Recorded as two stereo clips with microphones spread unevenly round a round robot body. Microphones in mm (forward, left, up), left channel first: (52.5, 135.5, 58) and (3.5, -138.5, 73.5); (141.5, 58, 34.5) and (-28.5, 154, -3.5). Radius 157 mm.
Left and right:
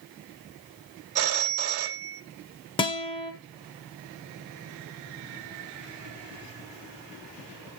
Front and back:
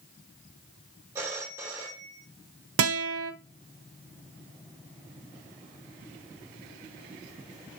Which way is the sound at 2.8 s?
155° left.